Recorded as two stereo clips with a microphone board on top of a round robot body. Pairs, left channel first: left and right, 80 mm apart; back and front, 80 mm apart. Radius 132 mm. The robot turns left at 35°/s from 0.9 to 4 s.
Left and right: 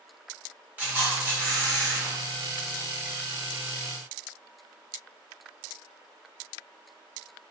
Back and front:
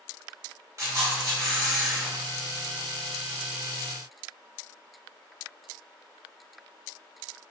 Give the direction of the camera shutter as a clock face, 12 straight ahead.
1 o'clock.